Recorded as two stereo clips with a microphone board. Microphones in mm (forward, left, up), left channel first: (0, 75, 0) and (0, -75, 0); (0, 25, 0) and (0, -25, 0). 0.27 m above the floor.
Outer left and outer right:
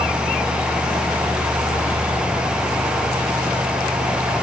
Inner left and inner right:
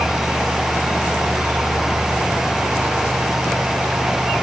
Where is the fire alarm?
No fire alarm in this recording.